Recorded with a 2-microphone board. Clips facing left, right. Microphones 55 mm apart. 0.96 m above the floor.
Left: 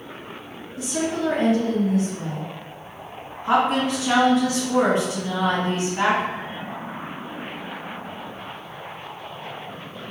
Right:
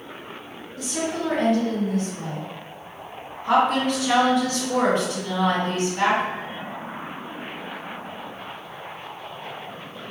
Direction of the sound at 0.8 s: 25° left (ahead or behind).